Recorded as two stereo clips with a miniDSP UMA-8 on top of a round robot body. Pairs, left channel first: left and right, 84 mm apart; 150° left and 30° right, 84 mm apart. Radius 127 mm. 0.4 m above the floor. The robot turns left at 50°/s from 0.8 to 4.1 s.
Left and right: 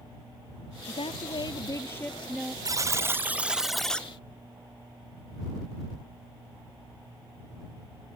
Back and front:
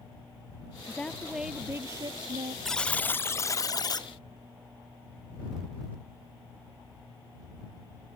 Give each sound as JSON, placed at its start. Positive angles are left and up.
{"t": 0.9, "sound": "a woman speaking", "azimuth_deg": 80}
{"t": 2.6, "sound": "a buzzer", "azimuth_deg": -125}